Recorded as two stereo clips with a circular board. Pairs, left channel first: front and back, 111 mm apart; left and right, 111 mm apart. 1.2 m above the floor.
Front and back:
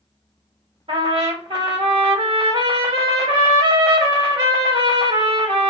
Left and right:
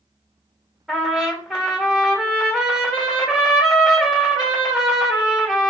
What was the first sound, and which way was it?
A trumpet, straight behind.